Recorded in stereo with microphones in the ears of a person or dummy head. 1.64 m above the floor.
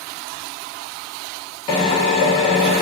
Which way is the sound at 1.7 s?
35° left (ahead or behind).